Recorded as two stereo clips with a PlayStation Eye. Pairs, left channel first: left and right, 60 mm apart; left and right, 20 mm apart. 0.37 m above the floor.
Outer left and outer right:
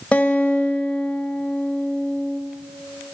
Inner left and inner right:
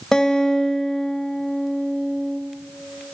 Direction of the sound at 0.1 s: 20° left (ahead or behind).